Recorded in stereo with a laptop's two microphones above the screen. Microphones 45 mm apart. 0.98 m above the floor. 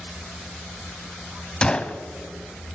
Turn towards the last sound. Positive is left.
turn(degrees=25)  # may be behind; listen again after turning